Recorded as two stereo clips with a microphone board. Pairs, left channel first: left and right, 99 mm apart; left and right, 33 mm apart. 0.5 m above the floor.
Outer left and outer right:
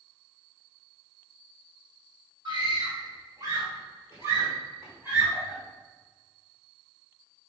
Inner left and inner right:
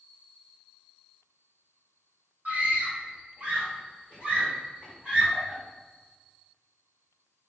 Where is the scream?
50° right (ahead or behind), 2.5 m; by 5.6 s 20° right (ahead or behind), 4 m.